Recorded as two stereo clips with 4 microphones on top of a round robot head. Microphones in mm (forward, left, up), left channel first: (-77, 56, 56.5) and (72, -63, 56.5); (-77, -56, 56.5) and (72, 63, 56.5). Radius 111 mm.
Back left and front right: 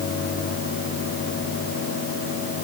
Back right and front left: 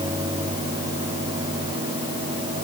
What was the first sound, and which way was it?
Only background noise.